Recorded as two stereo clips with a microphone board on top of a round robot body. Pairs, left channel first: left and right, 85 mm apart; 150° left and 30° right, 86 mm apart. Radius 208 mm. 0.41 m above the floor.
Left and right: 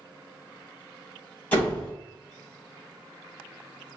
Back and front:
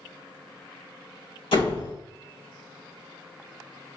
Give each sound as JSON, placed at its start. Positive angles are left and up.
{"t": 1.5, "sound": "a door slam", "azimuth_deg": 160, "distance_m": 2.5}